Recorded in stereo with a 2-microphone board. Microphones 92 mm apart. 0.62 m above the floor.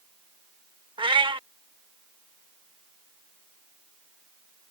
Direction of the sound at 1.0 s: 75° right (ahead or behind).